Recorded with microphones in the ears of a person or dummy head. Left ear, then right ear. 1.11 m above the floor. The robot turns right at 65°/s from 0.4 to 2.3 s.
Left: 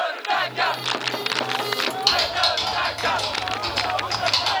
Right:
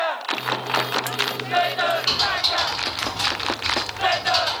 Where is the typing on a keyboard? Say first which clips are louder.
Left 1 dB; 65° left (ahead or behind), 1.2 m; by 4.5 s 70° left (ahead or behind), 1.2 m.